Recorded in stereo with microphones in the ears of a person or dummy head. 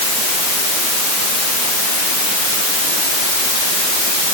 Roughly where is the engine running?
No engine running in this recording.